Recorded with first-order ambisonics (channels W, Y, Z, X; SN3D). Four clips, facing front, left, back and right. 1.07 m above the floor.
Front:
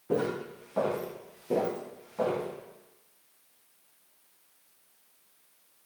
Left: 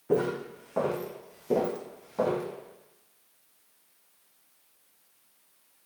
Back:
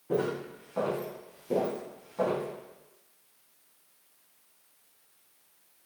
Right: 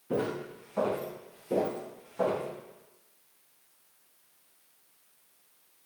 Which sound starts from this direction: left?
Footsteps, at 0.1 s.